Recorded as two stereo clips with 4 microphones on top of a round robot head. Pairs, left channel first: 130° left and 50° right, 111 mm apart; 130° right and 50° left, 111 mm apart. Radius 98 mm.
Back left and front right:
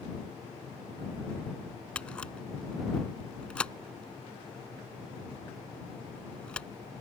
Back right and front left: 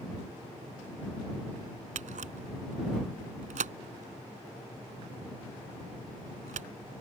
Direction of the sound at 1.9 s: 50° left.